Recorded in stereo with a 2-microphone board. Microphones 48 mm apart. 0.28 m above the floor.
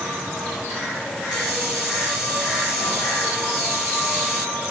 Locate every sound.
1.3 s a hiss: 15° right (ahead or behind), 2 m